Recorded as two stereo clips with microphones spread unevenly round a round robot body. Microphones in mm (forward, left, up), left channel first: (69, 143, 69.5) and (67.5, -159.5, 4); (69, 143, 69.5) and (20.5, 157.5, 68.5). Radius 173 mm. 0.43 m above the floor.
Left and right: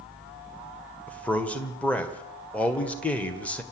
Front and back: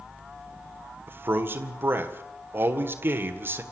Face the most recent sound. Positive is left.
turn(degrees=-175)